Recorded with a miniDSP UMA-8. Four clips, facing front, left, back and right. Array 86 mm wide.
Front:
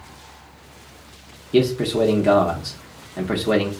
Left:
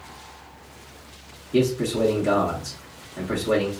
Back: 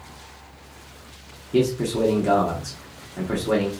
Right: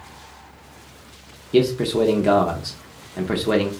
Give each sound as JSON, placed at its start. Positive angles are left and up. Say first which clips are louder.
{"t": 1.5, "sound": "a man speaking", "louder": "right 4 dB, front 3 dB", "azimuth_deg": -55, "distance_m": 0.7}